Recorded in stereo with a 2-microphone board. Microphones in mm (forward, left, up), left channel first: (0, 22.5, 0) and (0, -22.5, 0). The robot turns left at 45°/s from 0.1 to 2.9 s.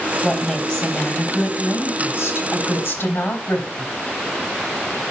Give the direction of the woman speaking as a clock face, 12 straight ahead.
6 o'clock.